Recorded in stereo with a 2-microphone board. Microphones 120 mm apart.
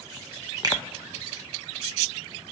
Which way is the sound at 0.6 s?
30° right (ahead or behind).